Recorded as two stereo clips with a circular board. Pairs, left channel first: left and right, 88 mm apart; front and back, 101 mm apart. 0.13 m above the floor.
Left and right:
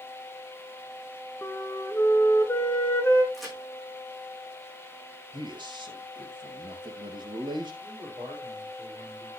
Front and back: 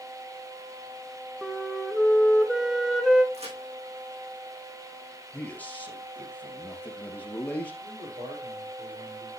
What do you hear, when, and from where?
1.4 s a flute: 100° left, 1.4 m
3.3 s a crack: straight behind, 6 m
5.3 s a man speaking: 75° right, 3 m
7.8 s a man speaking: 155° right, 5 m